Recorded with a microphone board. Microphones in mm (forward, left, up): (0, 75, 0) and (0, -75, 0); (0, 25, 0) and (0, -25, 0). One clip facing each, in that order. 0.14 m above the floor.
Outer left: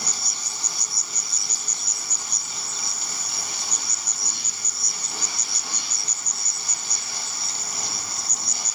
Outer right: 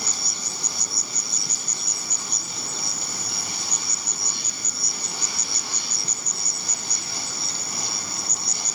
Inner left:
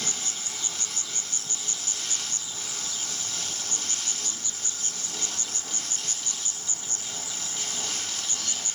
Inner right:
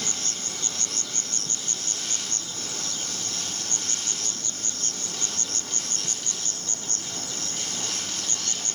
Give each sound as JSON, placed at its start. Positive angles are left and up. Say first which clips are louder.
{"t": 0.0, "sound": "an insect", "louder": "outer right 2 dB, inner right 1 dB", "side_deg": -55}